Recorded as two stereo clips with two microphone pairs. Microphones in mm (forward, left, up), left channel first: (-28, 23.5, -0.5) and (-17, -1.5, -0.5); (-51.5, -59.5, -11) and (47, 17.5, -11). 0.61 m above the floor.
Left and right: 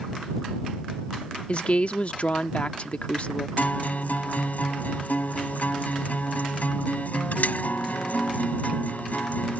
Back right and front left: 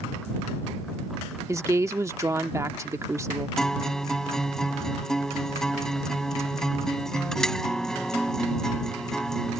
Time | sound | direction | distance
1.5 | a woman speaking | 100° left | ?
3.6 | a guitar | 135° left | ?